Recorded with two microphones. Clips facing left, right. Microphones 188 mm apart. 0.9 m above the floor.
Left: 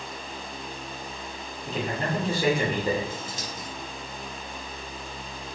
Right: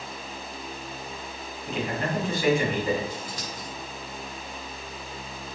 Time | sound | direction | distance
1.7 | a man speaking | 35° left (ahead or behind) | 2.5 m
3.1 | scissors | 25° left (ahead or behind) | 2.5 m